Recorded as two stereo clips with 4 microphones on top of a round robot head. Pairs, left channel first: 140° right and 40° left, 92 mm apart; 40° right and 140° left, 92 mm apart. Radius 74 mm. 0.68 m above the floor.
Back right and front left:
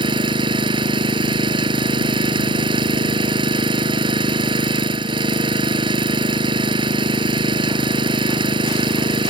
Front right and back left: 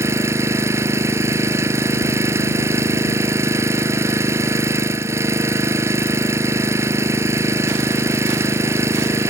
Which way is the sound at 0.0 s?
80° left.